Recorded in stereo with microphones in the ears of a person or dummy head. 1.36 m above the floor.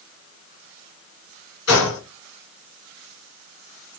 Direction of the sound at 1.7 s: 70° left (ahead or behind).